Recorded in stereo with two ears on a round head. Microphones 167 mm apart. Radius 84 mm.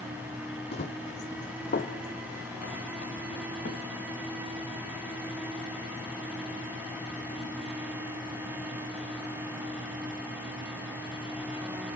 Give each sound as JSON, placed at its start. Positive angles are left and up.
{"t": 0.7, "sound": "running footsteps", "side_deg": 35, "distance_m": 1.2}